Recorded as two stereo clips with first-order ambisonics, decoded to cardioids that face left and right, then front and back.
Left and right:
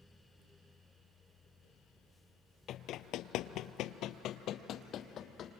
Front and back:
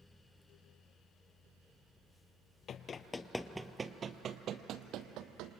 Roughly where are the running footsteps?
Ahead left.